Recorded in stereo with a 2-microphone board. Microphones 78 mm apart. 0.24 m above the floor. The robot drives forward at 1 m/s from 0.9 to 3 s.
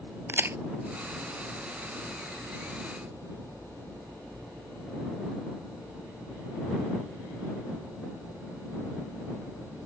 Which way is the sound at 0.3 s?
30° right (ahead or behind).